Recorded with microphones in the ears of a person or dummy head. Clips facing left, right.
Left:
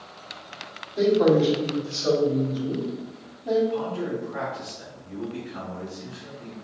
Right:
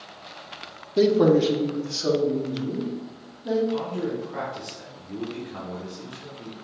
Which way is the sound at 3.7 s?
70° right (ahead or behind).